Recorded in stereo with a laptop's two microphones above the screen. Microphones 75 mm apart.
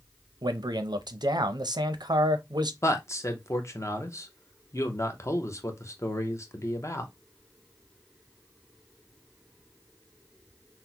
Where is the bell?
No bell in this recording.